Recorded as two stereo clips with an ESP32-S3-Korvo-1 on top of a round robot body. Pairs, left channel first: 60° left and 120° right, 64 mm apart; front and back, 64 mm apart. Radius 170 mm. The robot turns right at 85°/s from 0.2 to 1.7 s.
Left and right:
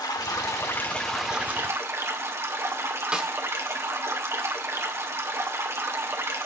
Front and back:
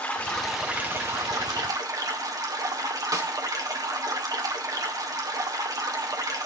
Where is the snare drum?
165° left, 2 m.